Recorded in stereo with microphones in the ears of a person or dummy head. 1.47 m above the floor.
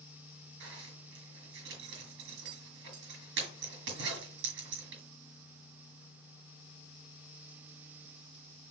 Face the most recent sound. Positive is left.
turn(degrees=-70)  # may be behind; listen again after turning